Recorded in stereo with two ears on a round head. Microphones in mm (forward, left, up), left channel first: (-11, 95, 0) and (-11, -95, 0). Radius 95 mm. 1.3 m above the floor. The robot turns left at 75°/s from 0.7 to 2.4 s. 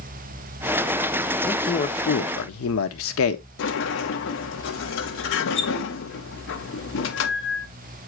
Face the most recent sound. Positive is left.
turn(degrees=65)  # may be behind; listen again after turning